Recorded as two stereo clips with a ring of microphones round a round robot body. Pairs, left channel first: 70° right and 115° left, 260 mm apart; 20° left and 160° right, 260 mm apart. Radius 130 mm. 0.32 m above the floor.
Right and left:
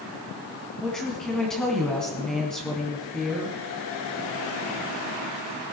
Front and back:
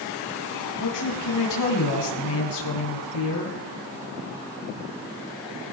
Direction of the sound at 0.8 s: 20° left.